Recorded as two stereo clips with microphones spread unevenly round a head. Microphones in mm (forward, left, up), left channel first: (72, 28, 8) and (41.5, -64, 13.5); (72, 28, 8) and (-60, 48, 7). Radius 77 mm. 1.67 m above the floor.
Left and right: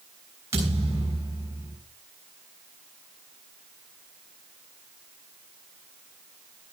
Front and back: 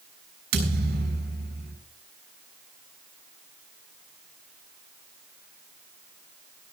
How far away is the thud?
About 6.5 m.